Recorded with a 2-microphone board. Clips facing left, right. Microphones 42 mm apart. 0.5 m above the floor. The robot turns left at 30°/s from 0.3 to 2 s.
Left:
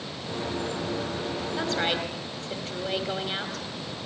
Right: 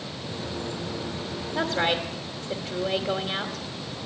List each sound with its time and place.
1.6 s a woman speaking: 35° right (ahead or behind), 2.5 m; by 3.7 s 25° right (ahead or behind), 2.5 m